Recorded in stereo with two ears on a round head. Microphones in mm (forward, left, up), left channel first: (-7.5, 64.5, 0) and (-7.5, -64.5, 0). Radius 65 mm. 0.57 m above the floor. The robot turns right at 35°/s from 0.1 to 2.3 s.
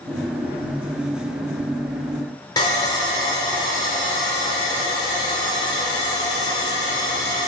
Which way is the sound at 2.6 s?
30° left (ahead or behind).